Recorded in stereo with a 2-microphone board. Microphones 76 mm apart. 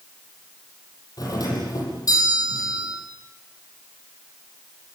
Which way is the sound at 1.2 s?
55° left (ahead or behind).